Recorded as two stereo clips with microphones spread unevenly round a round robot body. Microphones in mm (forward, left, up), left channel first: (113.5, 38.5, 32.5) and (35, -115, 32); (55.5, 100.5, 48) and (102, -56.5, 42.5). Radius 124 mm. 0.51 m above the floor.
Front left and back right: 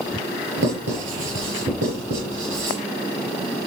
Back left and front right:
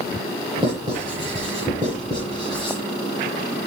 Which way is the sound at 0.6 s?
145° right.